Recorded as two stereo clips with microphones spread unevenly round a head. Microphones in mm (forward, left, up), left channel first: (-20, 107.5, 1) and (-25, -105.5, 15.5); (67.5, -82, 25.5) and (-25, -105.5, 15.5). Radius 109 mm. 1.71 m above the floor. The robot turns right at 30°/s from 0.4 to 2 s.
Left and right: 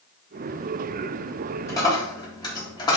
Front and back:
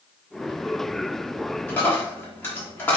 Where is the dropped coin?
20° left, 1.3 m; by 3.0 s 30° left, 1.3 m.